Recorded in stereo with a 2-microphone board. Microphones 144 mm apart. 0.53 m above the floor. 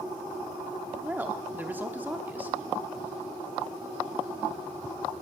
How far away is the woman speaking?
About 0.8 m.